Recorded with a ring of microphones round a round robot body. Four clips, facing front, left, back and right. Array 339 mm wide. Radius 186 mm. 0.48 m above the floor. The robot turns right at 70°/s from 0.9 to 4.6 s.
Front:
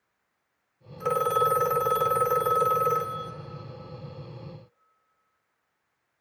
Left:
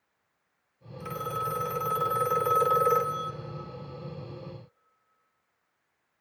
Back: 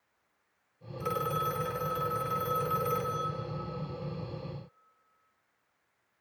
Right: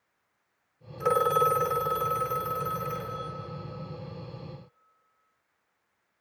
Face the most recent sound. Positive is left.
turn(degrees=-175)